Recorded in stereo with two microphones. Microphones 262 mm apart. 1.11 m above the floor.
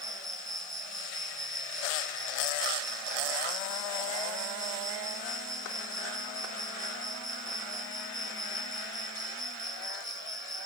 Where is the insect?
30° right (ahead or behind).